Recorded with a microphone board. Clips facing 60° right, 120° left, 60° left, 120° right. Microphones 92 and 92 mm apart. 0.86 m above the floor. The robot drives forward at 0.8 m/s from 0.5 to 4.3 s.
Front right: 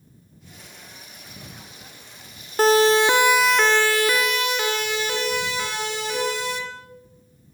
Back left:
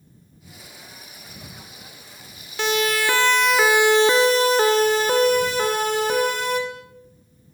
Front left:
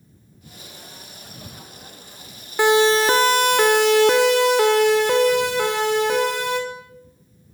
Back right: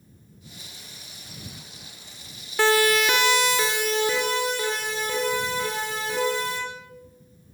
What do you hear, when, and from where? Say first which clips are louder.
2.6 s a siren: front right 6 dB, front left 5 dB; 10° right, 2.5 m; by 6.6 s 80° left, 6 m